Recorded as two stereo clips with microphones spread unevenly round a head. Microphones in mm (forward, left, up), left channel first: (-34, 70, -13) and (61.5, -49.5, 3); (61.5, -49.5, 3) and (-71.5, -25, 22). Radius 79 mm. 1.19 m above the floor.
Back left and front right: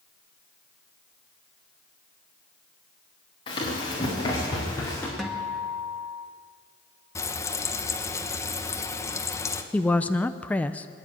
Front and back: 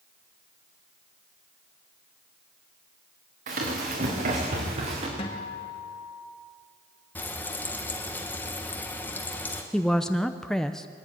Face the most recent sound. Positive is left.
turn(degrees=60)